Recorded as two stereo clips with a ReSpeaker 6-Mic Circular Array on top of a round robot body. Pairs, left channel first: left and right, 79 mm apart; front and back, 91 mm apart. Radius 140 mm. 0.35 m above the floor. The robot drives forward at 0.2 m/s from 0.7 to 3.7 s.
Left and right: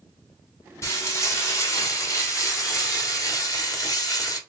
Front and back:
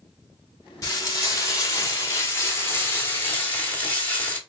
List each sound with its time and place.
0.8 s frying: 45° left, 1.7 m; by 4.4 s 65° left, 1.4 m